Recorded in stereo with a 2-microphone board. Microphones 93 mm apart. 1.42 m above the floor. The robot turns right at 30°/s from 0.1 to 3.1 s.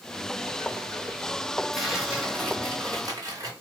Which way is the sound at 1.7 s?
Straight behind.